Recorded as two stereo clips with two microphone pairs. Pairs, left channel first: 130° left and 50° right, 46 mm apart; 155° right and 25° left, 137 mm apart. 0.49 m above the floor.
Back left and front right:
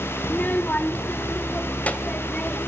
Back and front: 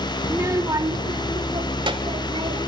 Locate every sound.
0.2 s a child speaking: 95° left, 0.6 m; by 2.6 s 75° left, 1.8 m